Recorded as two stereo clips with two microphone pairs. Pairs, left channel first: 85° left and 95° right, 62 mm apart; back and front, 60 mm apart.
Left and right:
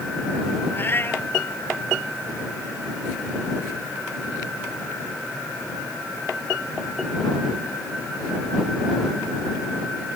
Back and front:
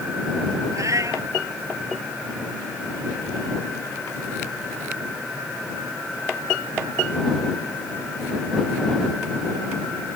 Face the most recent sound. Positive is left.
turn(degrees=30)